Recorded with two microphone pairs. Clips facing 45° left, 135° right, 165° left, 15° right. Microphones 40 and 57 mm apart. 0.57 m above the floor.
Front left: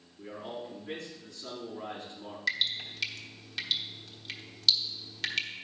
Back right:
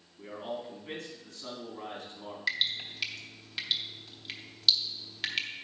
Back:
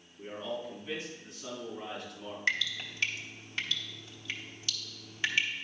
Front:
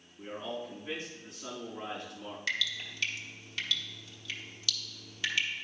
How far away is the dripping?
About 1.0 m.